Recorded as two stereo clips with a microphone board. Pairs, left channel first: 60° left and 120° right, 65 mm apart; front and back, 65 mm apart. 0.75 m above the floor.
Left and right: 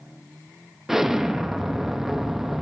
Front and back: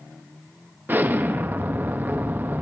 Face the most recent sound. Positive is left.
turn(degrees=160)